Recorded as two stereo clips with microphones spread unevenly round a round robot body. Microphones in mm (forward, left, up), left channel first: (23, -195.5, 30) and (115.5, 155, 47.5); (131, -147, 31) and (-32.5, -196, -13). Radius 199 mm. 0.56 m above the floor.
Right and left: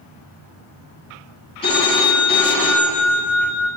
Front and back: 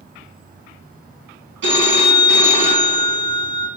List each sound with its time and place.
1.6 s a phone ringing: straight behind, 2.5 m